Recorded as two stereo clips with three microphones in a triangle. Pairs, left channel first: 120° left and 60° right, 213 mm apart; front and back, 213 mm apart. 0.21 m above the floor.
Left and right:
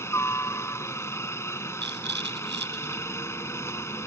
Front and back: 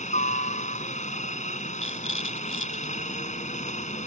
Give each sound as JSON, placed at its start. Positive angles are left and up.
{"t": 0.0, "sound": "a helicopter", "azimuth_deg": 45}
{"t": 1.8, "sound": "a rattle", "azimuth_deg": -25}